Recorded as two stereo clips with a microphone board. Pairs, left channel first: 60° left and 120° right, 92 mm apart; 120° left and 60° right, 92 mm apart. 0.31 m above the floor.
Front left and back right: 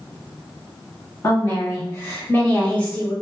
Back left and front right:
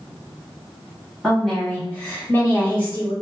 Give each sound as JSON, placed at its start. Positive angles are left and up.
{"t": 1.2, "sound": "a woman speaking", "azimuth_deg": 40, "distance_m": 1.6}